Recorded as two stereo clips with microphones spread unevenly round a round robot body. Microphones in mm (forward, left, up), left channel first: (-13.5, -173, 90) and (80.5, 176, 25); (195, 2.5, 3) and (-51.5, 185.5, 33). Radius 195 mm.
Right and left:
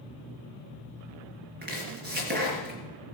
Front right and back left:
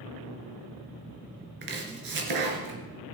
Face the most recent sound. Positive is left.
turn(degrees=140)